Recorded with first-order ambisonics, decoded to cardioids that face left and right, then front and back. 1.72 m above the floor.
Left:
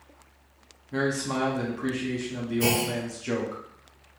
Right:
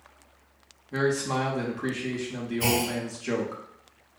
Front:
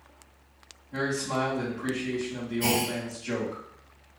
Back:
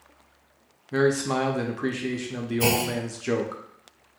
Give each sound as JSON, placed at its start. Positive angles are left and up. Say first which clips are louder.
{"t": 0.9, "sound": "a man speaking", "louder": "right 2 dB, back 6 dB", "azimuth_deg": -170, "distance_m": 0.5}
{"t": 2.6, "sound": "a clunk", "louder": "even, back 3 dB", "azimuth_deg": 170, "distance_m": 1.0}